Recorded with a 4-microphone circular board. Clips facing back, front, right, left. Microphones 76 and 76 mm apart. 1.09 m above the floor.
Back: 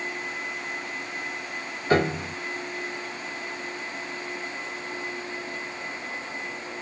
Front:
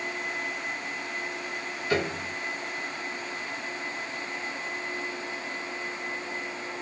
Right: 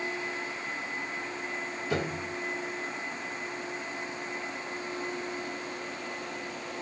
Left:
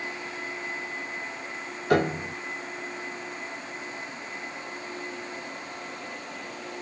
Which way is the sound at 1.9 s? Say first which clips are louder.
Back 6 dB, left 9 dB; 125° left.